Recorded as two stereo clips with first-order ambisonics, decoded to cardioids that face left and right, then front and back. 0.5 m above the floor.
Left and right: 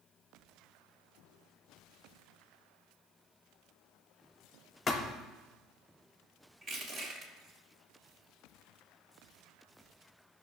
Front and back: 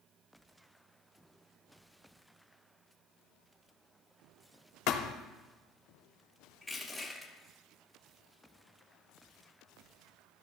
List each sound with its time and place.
4.9 s a thud: 20° left, 0.8 m
6.6 s crushing: 90° right, 1.3 m